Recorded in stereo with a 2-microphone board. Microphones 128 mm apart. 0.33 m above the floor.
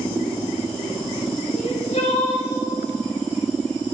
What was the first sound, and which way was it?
Crying, 65° left (ahead or behind).